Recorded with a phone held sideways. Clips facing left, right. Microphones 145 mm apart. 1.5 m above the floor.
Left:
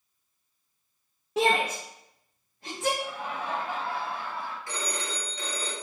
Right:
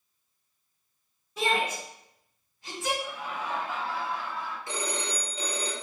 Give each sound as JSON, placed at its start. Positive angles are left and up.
{"t": 1.4, "sound": "a shout", "side_deg": 75, "distance_m": 1.3}
{"t": 3.0, "sound": "laughter", "side_deg": 60, "distance_m": 2.0}
{"t": 4.7, "sound": "a phone ringing", "side_deg": -25, "distance_m": 1.7}